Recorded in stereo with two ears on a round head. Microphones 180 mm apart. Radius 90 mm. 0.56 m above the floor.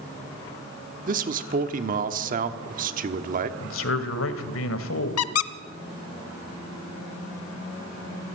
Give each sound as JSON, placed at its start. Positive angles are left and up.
{"t": 1.1, "sound": "a man speaking", "side_deg": -45, "distance_m": 1.3}
{"t": 3.6, "sound": "a man speaking", "side_deg": 75, "distance_m": 2.0}
{"t": 5.2, "sound": "a squeak", "side_deg": 80, "distance_m": 0.9}